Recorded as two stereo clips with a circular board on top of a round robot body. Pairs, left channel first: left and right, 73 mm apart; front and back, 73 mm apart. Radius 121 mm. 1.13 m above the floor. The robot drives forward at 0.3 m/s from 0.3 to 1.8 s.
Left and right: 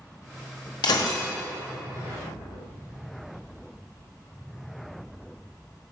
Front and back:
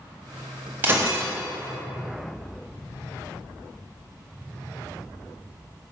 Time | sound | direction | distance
0.8 | breaking glass | 115° left | 0.6 m